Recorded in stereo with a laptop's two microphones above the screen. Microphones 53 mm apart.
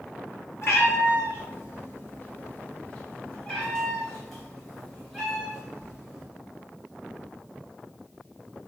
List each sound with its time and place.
0.6 s a cat meowing: 55° left (ahead or behind), 1.6 m; by 6.3 s 15° right (ahead or behind), 2 m